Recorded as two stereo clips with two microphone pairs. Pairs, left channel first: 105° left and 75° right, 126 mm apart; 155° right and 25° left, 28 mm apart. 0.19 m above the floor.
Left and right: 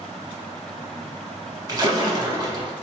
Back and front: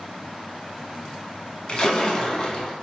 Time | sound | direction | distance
1.7 | a splash | 115° right | 0.6 m